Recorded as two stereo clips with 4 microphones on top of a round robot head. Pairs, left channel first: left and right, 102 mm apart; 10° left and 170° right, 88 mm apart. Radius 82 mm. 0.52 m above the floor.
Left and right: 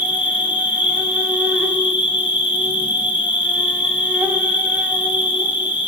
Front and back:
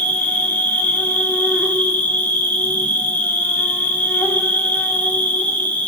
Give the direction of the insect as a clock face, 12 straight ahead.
1 o'clock.